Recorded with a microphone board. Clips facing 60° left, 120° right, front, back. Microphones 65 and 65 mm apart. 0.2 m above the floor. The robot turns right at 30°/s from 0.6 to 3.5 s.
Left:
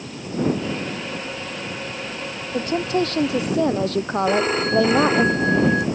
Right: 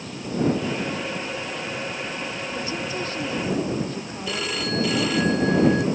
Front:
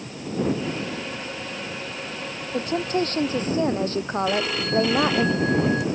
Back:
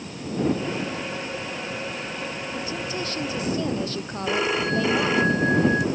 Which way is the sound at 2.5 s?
25° left.